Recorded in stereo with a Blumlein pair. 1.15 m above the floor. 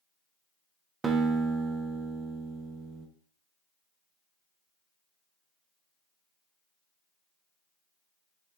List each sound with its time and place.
1.0 s a guitar: 20° right, 0.9 m